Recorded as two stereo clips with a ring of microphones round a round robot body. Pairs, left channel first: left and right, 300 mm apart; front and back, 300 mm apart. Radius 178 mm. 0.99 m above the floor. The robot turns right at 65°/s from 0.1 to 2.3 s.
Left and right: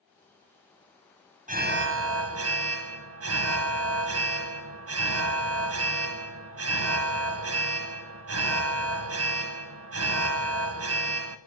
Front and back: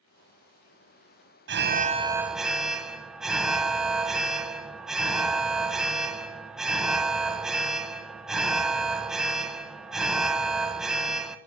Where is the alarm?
145° right, 1.1 m; by 11.4 s 95° right, 1.1 m.